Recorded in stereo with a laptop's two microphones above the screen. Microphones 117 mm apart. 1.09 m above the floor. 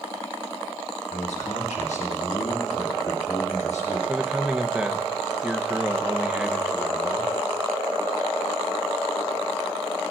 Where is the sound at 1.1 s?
70° left (ahead or behind), 1.9 m.